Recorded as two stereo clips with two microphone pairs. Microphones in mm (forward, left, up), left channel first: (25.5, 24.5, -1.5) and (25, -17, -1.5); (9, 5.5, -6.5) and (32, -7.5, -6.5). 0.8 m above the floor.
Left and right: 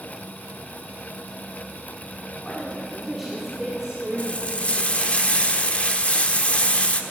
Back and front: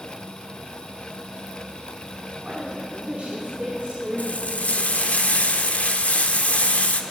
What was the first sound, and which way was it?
A woman speaking, 20° left.